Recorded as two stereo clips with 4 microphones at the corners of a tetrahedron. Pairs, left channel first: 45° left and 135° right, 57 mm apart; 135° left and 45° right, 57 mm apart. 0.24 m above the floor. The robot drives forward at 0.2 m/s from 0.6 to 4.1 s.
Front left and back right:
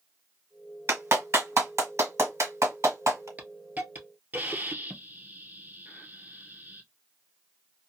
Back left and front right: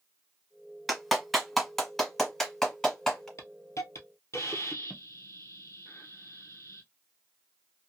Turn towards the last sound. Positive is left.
turn(degrees=165)